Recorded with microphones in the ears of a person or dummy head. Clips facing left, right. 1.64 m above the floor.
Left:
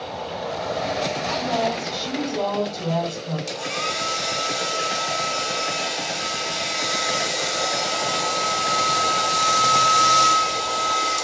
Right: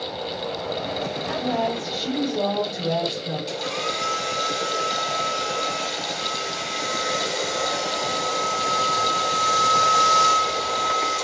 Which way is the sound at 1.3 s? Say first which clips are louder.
Right 1 dB; 30° right (ahead or behind).